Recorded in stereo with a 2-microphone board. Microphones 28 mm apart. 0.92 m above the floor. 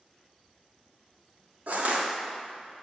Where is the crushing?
60° right (ahead or behind), 1.3 m.